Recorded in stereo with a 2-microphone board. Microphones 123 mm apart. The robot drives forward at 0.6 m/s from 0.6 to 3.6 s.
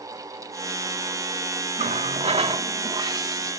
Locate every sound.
1.8 s a running tap: 75° right (ahead or behind); by 3.5 s 30° right (ahead or behind)